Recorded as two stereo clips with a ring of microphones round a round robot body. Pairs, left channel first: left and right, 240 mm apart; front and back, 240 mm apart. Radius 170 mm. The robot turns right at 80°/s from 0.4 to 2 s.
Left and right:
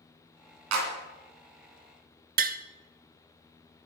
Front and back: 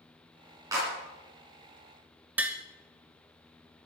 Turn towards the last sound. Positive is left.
turn(degrees=-100)